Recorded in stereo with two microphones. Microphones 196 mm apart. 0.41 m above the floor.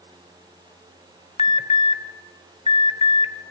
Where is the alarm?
30° left (ahead or behind), 1.1 m.